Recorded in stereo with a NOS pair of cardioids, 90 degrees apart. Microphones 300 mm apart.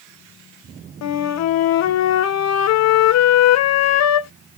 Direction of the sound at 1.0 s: 60° left.